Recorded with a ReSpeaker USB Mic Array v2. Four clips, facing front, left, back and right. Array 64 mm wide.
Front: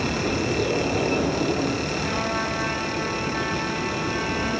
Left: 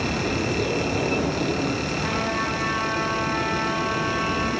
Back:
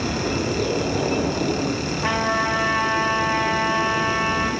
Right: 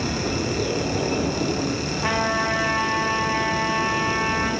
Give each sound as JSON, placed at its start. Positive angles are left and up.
{"t": 2.0, "sound": "a trumpet", "azimuth_deg": -120, "distance_m": 7.0}